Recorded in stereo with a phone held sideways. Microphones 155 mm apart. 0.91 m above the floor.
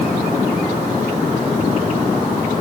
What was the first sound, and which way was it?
Only background noise.